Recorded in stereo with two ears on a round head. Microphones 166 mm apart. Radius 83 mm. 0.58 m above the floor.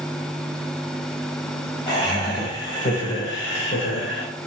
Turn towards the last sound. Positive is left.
turn(degrees=65)  # may be behind; listen again after turning